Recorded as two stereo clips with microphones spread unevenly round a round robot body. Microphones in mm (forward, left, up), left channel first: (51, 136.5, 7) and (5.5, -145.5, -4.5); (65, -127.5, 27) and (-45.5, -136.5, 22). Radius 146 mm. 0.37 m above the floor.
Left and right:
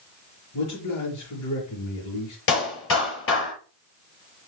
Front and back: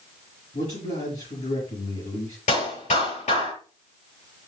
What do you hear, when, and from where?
0.5 s a man speaking: 50° left, 5.5 m
2.5 s a clap: 35° left, 6.5 m